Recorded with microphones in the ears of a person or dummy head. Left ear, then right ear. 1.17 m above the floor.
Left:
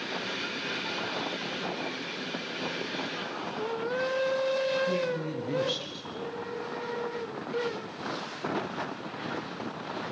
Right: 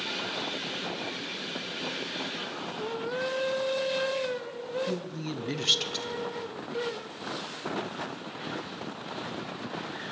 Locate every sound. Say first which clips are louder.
4.9 s a woman speaking: left 5 dB; 25° right (ahead or behind), 1.0 m